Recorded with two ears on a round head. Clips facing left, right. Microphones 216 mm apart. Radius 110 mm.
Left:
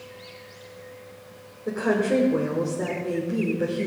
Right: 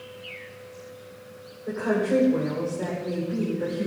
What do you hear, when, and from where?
1.7 s a woman speaking: 45° left (ahead or behind), 3 m